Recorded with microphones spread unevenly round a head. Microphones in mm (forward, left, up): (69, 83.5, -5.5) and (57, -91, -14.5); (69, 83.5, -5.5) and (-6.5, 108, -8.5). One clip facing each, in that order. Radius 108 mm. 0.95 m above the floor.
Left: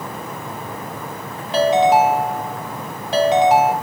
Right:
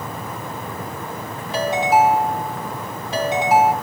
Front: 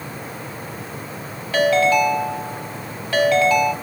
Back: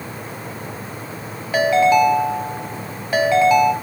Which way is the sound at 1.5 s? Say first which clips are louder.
Left 4 dB, back 2 dB; 90° left.